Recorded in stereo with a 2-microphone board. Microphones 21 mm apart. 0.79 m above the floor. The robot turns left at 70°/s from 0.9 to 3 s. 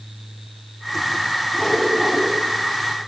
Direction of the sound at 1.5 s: 20° left.